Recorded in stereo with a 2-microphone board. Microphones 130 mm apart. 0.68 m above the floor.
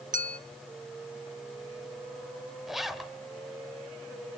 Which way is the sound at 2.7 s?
Centre (ahead or behind).